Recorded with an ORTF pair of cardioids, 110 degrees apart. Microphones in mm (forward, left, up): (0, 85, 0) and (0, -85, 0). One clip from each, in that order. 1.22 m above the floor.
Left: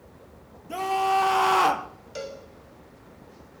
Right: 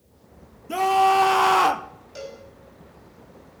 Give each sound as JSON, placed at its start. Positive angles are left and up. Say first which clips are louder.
{"t": 0.7, "sound": "a scream", "louder": "right 6 dB", "azimuth_deg": -30, "distance_m": 1.7}
{"t": 2.1, "sound": "a cowbell", "louder": "left 1 dB", "azimuth_deg": 30, "distance_m": 5.5}